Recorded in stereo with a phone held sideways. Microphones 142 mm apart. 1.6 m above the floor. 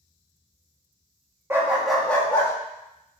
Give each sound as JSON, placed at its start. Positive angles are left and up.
{"t": 1.5, "sound": "a dog barking", "side_deg": -20, "distance_m": 0.9}